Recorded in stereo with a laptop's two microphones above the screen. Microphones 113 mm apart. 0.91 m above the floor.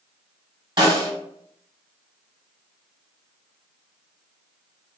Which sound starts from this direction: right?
A snare drum, at 0.8 s.